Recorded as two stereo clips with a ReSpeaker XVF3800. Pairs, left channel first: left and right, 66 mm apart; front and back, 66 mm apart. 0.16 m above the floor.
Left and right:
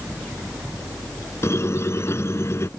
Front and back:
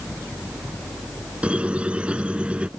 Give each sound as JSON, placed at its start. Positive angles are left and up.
{"t": 1.4, "sound": "a squeak", "azimuth_deg": 115}